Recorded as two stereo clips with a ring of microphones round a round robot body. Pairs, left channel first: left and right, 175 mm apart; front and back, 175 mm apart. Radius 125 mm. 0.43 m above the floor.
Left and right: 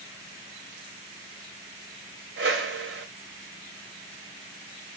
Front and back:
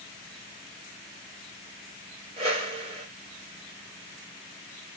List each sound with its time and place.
2.4 s a whoosh: 120° right, 1.4 m